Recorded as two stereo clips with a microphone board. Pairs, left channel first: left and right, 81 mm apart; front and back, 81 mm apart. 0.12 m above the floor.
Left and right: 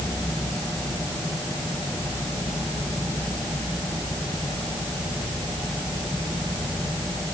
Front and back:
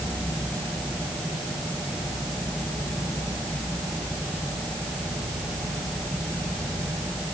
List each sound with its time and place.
Only background noise.